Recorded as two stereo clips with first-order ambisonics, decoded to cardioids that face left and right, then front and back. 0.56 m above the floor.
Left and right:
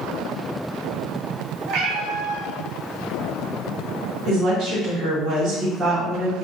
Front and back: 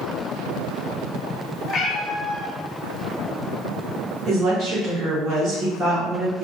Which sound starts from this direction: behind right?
A woman speaking, at 4.3 s.